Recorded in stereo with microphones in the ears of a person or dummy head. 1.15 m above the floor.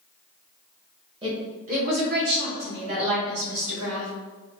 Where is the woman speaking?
25° right (ahead or behind), 1.0 m; by 4.1 s 75° right (ahead or behind), 2 m.